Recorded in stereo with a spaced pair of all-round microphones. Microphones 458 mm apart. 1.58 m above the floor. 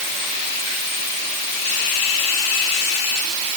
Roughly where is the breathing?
No breathing in this recording.